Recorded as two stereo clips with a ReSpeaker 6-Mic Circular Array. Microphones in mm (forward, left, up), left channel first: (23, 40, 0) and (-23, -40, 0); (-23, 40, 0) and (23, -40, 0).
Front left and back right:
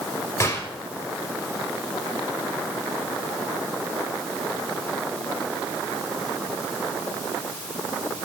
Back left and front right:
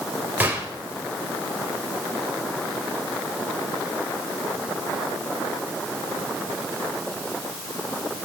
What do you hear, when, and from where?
0.4 s a gunshot: 10° left, 2.5 m